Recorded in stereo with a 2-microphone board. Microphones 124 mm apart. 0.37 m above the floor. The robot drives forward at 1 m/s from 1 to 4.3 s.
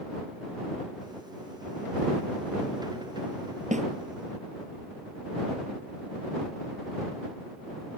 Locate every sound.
3.7 s a snare drum: 75° right (ahead or behind)